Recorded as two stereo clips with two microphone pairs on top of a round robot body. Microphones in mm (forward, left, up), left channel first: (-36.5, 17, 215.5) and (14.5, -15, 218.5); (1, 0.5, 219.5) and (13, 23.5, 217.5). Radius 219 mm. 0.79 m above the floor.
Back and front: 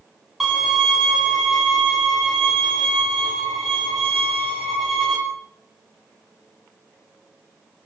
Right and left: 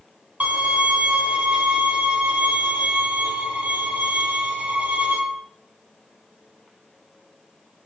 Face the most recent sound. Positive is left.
turn(degrees=55)